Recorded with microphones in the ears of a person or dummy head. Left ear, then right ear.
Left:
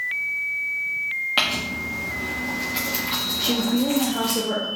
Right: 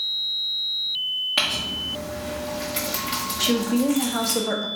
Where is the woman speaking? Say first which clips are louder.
Right 4 dB; 65° right (ahead or behind), 0.8 m.